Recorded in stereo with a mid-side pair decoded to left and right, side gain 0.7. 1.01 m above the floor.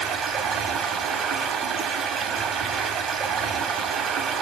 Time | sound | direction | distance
0.0 | running water | 45° right | 1.6 m